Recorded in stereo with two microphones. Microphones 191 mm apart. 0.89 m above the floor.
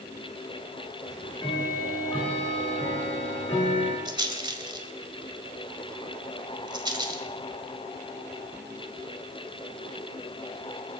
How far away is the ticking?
About 7 m.